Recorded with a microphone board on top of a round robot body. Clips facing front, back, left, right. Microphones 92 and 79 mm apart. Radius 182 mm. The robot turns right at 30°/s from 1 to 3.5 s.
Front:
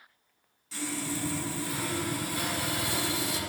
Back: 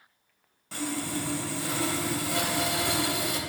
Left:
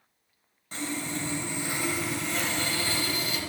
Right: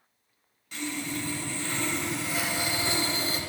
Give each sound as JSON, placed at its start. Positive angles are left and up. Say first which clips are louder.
{"t": 0.7, "sound": "sawing", "louder": "back 3 dB, even", "azimuth_deg": 145, "distance_m": 4.0}